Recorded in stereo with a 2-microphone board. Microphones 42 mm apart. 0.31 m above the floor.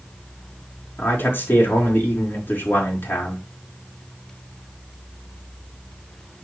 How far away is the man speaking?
About 4.5 m.